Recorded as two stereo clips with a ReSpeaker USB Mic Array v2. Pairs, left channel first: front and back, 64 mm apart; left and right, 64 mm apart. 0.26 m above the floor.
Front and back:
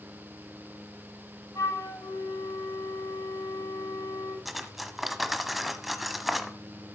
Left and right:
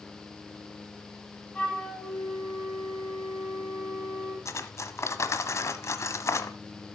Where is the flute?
20° left, 6 m.